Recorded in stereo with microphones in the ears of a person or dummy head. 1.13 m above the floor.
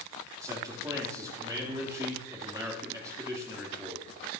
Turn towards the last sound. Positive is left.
turn(degrees=-15)  # may be behind; listen again after turning